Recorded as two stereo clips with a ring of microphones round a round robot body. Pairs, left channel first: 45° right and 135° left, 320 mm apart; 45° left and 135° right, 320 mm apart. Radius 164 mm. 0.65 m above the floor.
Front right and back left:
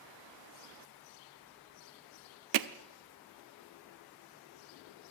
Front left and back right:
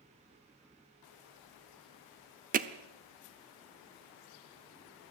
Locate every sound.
2.5 s hammering: 160° left, 0.9 m